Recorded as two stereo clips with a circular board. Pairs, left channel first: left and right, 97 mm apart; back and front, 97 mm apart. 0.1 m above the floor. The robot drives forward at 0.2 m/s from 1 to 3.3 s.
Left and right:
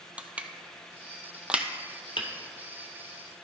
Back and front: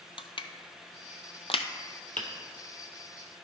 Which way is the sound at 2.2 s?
105° left.